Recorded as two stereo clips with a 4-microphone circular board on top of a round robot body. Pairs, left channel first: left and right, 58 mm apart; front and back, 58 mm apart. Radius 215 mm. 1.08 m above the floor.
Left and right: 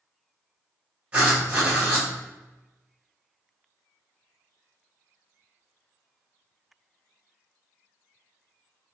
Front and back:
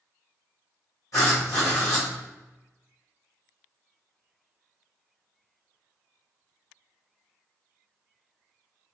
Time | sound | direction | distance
1.1 | writing | 25° right | 0.8 m